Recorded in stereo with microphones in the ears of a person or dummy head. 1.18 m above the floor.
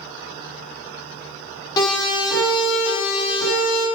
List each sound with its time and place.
1.8 s a siren: 25° left (ahead or behind), 8.5 m; by 3.9 s 40° left (ahead or behind), 8 m